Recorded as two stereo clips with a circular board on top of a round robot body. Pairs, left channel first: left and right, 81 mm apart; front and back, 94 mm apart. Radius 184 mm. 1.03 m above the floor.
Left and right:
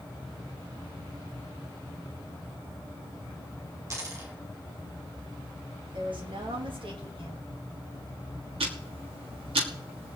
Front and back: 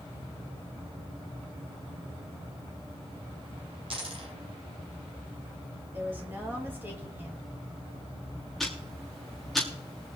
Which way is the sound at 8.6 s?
90° right.